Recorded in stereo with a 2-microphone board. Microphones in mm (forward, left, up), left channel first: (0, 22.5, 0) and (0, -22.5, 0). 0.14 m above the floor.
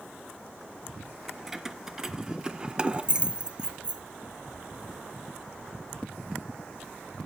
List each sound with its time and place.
1.3 s keys jangling: 5° right (ahead or behind), 1.4 m; by 4.0 s 20° right (ahead or behind), 1.0 m